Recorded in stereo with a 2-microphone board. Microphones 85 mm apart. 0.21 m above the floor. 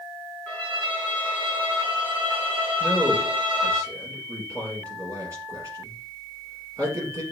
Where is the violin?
20° right (ahead or behind), 2.5 m.